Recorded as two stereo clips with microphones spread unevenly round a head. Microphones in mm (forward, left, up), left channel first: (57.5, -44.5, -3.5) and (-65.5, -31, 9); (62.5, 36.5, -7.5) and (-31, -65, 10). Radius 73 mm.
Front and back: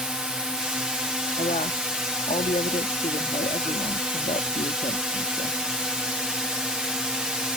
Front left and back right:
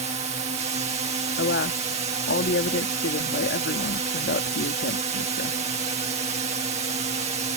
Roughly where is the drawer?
No drawer in this recording.